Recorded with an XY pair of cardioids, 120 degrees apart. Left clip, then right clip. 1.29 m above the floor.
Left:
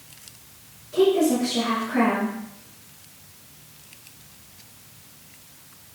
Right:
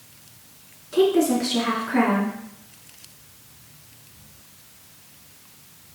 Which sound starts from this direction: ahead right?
A woman speaking, at 0.9 s.